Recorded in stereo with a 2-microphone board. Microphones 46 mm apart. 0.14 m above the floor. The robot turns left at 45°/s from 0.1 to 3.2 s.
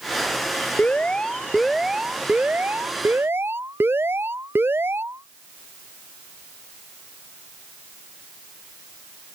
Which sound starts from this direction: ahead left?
An alarm, at 0.8 s.